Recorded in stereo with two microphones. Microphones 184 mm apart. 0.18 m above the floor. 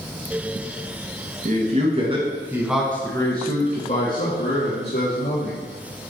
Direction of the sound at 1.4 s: 45° right (ahead or behind).